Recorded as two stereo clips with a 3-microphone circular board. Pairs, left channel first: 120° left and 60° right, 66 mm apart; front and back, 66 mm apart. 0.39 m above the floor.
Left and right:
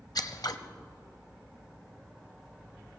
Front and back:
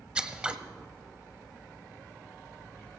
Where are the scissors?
105° left, 0.9 m.